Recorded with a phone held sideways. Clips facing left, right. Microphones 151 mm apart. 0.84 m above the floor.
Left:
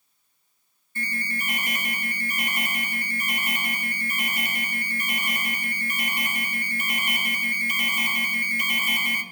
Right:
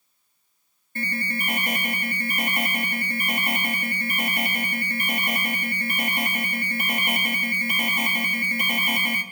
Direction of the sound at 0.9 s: 50° right (ahead or behind).